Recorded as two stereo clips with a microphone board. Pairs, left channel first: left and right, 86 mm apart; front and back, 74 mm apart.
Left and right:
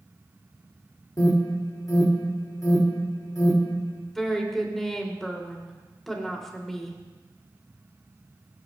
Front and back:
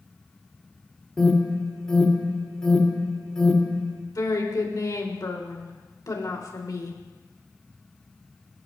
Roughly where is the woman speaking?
Ahead.